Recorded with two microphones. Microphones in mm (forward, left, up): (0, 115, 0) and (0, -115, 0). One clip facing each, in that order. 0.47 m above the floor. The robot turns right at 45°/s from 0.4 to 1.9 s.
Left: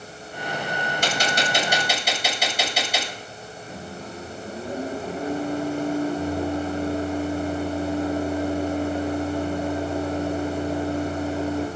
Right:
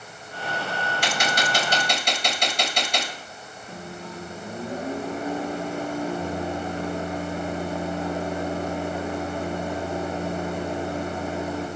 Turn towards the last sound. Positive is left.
turn(degrees=30)  # may be behind; listen again after turning